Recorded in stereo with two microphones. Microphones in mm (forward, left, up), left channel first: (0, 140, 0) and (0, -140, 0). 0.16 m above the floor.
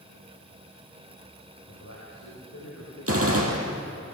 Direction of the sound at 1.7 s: 70° left (ahead or behind).